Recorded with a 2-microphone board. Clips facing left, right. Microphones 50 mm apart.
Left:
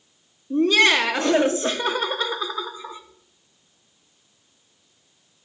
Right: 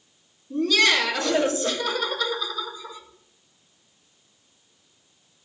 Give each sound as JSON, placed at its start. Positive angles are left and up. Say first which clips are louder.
{"t": 0.5, "sound": "laughter", "louder": "left 3 dB", "side_deg": 30, "distance_m": 1.0}